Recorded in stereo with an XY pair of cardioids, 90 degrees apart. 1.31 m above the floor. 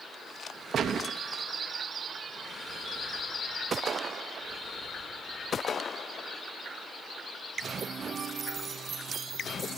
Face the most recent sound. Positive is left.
turn(degrees=-65)